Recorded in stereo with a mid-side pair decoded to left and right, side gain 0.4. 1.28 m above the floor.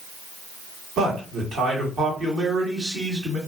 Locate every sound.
1.0 s a man speaking: 60° right, 1.6 m